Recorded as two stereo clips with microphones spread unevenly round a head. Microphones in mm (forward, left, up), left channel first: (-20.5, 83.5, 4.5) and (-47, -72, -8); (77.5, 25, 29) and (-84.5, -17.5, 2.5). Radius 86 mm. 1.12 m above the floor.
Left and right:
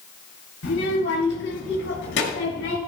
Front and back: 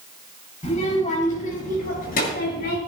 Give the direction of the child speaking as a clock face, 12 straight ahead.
10 o'clock.